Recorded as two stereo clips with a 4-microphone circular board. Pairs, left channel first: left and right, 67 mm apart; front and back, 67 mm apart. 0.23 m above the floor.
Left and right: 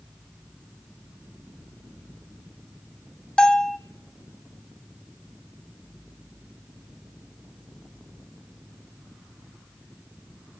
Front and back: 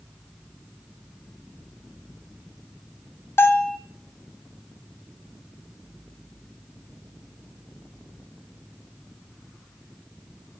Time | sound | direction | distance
3.4 | a bell | 20° left | 1.1 m